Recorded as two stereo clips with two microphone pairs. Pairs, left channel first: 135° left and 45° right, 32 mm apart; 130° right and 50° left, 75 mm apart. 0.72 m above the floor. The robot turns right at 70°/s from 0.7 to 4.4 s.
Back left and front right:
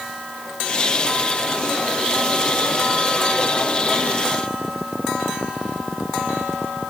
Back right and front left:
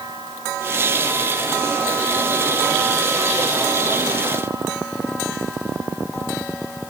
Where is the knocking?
No knocking in this recording.